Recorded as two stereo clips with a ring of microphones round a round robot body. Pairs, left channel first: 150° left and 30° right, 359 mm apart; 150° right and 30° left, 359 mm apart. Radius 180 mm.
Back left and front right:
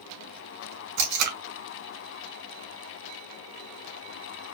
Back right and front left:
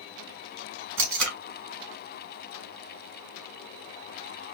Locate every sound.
1.0 s tape being pulled: 25° right, 2.5 m